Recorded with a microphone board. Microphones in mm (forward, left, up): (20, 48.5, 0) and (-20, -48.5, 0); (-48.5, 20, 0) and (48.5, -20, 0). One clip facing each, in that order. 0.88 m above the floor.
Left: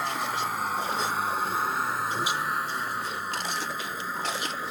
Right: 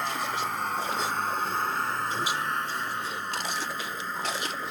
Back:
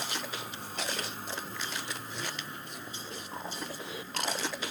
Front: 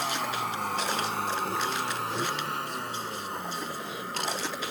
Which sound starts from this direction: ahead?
A vehicle, at 0.0 s.